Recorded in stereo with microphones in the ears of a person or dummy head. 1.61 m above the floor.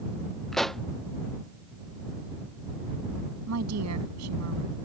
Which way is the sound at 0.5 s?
Centre (ahead or behind).